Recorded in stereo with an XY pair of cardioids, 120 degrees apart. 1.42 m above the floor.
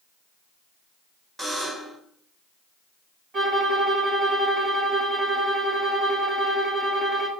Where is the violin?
40° right, 2.5 m.